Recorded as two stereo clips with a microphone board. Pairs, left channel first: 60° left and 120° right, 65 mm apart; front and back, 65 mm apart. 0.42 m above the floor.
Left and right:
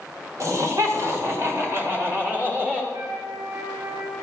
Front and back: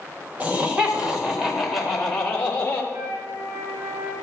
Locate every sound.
0.4 s laughter: 120° right, 2 m; by 2.8 s 65° right, 2 m
2.9 s a flute: 155° right, 5 m